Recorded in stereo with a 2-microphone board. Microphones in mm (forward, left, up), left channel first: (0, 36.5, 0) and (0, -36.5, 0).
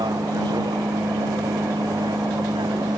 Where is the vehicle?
85° right; by 3.0 s 80° right.